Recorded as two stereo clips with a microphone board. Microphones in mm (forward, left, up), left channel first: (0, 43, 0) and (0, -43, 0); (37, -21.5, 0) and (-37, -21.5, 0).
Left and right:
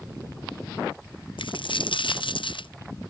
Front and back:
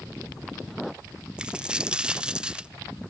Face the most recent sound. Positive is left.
turn(degrees=100)